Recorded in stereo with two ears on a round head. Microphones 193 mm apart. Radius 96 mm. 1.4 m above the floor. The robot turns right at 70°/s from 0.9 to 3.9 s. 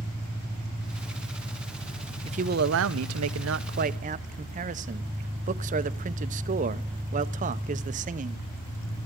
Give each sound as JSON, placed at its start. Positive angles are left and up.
{"t": 0.0, "sound": "an engine running", "azimuth_deg": -50, "distance_m": 7.0}
{"t": 2.2, "sound": "a man speaking", "azimuth_deg": -150, "distance_m": 0.6}